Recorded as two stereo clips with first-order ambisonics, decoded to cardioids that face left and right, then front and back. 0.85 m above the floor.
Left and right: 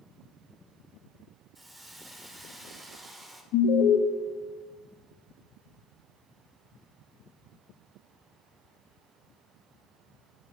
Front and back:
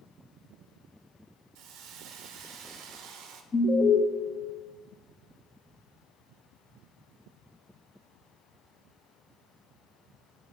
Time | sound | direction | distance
1.6 | a hiss | 170° right | 0.7 m
3.5 | an alarm | 70° left | 0.7 m